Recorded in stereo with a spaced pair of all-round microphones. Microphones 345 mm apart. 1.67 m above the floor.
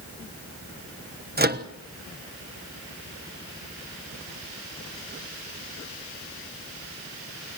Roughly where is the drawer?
No drawer in this recording.